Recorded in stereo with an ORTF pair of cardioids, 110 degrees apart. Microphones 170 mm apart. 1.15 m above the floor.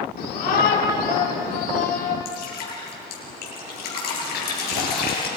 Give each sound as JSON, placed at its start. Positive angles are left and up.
{"t": 0.2, "sound": "a shout", "azimuth_deg": 65, "distance_m": 3.5}
{"t": 2.2, "sound": "dripping", "azimuth_deg": 70, "distance_m": 6.5}